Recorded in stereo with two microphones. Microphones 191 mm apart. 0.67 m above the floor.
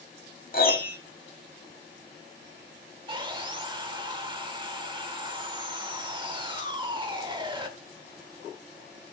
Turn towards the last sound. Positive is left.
turn(degrees=-25)  # may be behind; listen again after turning